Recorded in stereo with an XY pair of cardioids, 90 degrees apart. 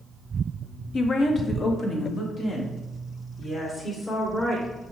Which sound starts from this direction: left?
A woman speaking, at 0.9 s.